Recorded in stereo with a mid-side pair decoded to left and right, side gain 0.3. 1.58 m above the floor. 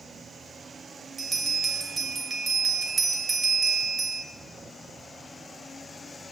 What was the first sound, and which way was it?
A bell, 45° right.